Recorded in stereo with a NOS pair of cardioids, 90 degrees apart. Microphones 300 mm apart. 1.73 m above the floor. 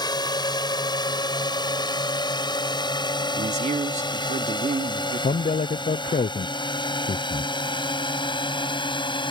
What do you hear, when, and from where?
0.0 s a drone: 15° left
3.4 s a man speaking: 25° right
5.2 s a man speaking: 25° left